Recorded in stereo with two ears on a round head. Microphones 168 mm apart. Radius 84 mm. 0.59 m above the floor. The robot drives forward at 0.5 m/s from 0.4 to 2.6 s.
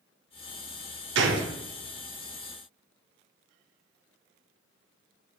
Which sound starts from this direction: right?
A gunshot, at 1.1 s.